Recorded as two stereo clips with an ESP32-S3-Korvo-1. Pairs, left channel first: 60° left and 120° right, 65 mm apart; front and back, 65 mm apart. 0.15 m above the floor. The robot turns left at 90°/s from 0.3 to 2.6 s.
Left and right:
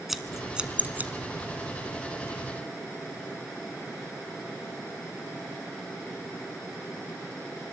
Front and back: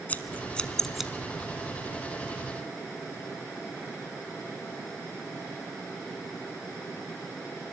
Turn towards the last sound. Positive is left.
turn(degrees=120)